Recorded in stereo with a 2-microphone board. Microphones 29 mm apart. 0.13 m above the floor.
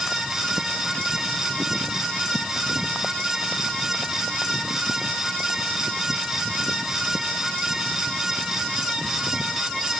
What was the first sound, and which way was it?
Only background noise.